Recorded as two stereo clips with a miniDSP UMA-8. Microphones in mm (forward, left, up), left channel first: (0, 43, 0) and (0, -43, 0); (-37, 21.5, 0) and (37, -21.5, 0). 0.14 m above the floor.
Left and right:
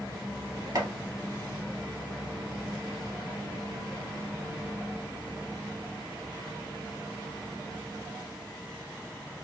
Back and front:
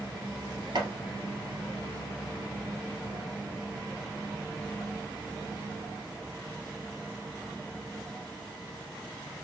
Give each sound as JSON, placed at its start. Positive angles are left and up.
{"t": 0.8, "sound": "chopping", "azimuth_deg": -45, "distance_m": 2.0}